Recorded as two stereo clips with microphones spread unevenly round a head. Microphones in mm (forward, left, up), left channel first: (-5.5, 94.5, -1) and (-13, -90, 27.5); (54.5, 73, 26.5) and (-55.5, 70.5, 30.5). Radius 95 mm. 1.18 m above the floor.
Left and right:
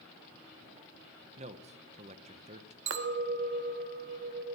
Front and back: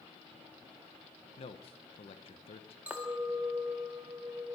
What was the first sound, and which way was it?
A man speaking, 35° right.